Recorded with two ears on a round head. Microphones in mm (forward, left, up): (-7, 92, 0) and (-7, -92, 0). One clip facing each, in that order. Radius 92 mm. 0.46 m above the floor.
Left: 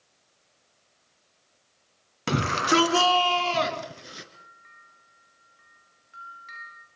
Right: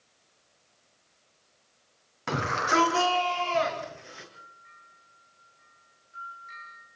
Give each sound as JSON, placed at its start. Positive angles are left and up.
{"t": 2.3, "sound": "a shout", "side_deg": 40, "distance_m": 4.0}
{"t": 4.3, "sound": "a bell", "side_deg": 65, "distance_m": 7.5}